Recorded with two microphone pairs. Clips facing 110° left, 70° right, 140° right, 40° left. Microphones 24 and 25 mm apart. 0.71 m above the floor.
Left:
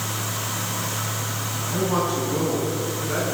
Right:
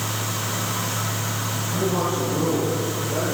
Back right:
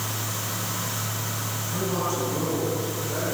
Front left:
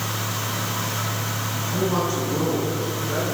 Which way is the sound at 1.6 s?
100° left.